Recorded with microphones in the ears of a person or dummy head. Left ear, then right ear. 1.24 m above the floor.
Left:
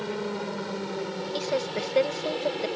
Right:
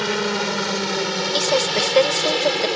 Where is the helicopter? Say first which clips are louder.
Right 10 dB; 65° right (ahead or behind); by 2.8 s 70° right (ahead or behind).